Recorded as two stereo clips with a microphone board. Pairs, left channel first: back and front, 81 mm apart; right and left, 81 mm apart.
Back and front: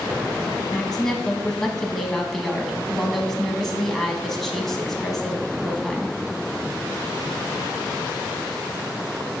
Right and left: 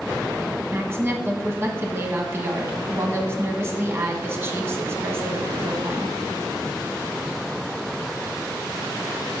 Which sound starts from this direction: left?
A woman speaking, at 0.7 s.